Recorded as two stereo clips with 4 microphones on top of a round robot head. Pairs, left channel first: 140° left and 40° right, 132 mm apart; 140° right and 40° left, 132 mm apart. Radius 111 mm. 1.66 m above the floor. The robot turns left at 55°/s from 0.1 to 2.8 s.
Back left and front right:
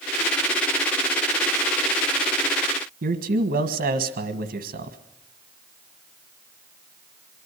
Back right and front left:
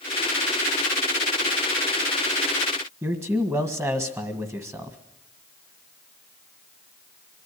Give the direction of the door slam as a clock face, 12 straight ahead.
No door slam in this recording.